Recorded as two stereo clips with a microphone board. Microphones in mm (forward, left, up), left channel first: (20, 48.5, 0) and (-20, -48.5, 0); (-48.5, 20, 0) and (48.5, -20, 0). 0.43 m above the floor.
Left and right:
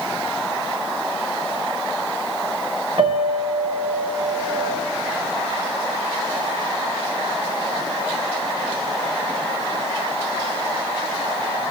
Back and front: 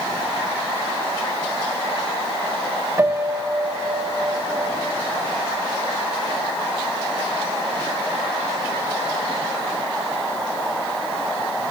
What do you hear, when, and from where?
3.0 s a piano: 85° right, 0.7 m